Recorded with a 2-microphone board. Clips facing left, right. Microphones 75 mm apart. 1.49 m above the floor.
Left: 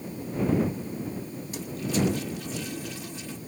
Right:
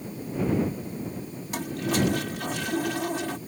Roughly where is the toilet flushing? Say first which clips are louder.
Right 3 dB; right.